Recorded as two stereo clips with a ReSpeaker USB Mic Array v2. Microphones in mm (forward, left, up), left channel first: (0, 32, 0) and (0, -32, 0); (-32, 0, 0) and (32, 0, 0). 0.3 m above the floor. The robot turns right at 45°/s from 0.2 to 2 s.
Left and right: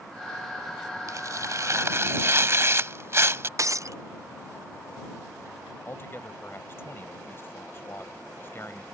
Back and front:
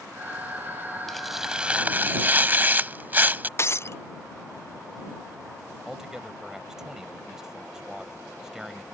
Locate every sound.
1.1 s tearing paper: 95° right; by 3.5 s 55° right
3.6 s breaking glass: 130° right
5.9 s a man speaking: 75° left